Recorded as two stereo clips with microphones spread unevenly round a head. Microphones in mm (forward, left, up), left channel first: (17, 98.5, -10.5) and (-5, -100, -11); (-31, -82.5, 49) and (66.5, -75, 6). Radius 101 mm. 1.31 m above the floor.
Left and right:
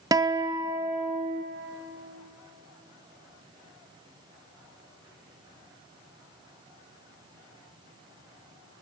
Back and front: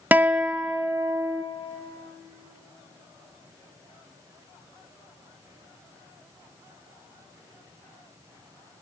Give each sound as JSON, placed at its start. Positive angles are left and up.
{"t": 0.1, "sound": "a guitar", "azimuth_deg": -30, "distance_m": 0.5}